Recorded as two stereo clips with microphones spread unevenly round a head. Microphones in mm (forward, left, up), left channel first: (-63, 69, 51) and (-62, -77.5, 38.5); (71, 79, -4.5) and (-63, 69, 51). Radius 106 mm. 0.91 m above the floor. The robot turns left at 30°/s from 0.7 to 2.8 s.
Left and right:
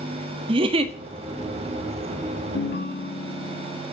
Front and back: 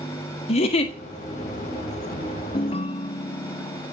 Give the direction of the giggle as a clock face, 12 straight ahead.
1 o'clock.